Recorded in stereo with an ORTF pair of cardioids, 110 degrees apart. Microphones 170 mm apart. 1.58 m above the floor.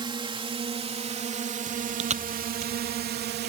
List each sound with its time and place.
0.0 s a drone: 25° right; by 3.5 s 65° right
1.7 s chewing: 40° right